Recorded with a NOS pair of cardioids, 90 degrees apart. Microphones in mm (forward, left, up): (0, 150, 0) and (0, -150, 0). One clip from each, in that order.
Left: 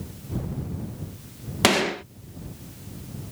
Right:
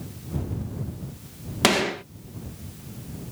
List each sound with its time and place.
1.6 s a gunshot: 10° left